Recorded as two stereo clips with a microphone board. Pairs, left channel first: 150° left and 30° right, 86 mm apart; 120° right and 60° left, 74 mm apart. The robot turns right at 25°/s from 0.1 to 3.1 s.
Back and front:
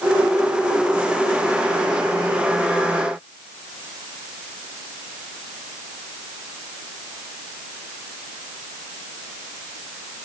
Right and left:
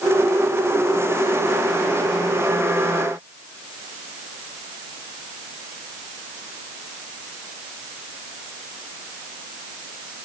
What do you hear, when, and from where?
Only background noise.